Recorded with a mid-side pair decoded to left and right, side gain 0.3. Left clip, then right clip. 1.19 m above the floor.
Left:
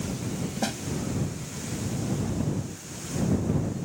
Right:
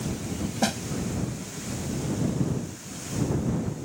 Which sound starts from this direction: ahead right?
A snare drum, at 0.6 s.